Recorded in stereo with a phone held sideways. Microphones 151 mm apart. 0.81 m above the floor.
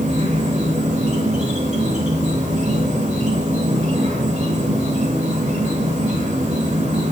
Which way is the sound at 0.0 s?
45° right (ahead or behind).